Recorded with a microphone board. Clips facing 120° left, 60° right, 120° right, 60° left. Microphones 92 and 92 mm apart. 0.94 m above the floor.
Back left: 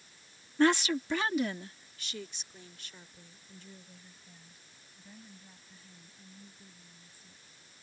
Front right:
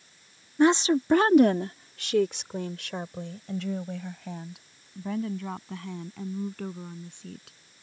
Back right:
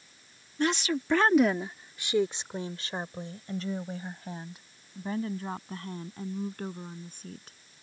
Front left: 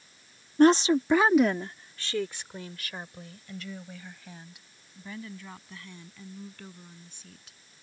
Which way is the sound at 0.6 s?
15° left.